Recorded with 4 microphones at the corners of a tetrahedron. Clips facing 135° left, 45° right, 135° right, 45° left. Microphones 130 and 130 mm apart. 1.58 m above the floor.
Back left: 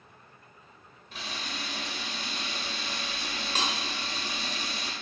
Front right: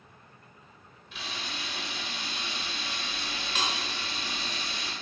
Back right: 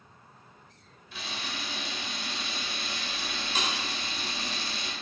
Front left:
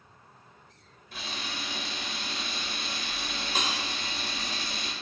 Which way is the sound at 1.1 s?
85° left.